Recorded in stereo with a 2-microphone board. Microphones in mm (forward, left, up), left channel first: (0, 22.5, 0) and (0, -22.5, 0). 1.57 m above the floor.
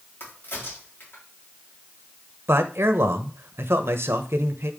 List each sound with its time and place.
0.2 s a crack: 55° left (ahead or behind), 3.5 m
2.5 s a man speaking: 65° right (ahead or behind), 1.1 m